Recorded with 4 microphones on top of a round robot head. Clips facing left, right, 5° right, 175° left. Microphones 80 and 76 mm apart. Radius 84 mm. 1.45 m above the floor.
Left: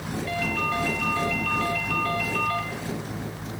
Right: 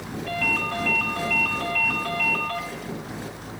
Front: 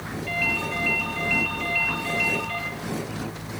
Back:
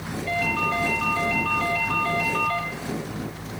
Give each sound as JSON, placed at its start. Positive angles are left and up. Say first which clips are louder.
{"t": 0.3, "sound": "a ringtone", "louder": "right 1 dB, back 4 dB", "azimuth_deg": -115, "distance_m": 6.0}